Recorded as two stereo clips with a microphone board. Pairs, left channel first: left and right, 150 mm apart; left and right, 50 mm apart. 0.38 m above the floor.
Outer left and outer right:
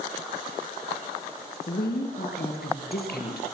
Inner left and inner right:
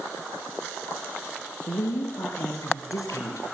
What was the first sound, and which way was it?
A woman speaking, 80° left.